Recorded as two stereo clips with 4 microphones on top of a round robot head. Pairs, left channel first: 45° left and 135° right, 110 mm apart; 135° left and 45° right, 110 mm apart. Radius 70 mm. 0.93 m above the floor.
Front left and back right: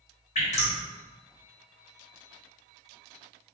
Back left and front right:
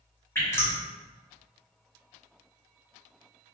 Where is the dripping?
65° left, 1.9 m.